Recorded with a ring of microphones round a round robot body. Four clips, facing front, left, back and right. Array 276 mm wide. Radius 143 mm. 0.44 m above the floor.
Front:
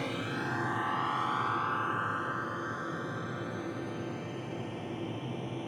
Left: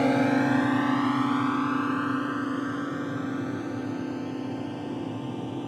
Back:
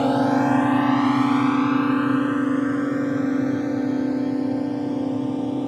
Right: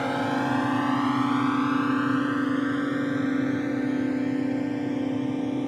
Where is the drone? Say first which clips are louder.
Left 3 dB, back 17 dB; 150° left; by 5.7 s 155° right.